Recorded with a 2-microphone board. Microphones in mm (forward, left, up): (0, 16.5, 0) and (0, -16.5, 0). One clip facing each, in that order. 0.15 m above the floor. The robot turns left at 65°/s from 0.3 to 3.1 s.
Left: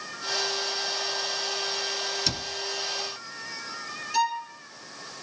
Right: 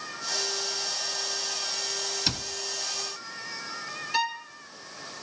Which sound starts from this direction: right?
A violin, at 4.1 s.